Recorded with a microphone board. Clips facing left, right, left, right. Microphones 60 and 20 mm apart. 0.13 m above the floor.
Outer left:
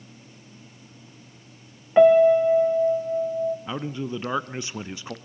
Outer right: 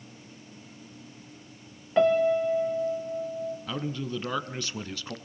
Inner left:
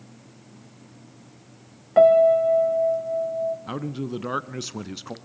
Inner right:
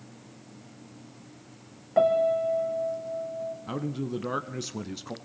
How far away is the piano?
About 1.8 m.